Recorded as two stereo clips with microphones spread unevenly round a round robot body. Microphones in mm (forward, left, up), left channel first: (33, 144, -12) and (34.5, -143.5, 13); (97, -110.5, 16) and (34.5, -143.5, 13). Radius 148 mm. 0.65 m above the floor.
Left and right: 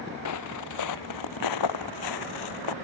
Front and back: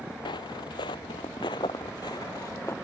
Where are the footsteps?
60° left; by 2.7 s 105° left.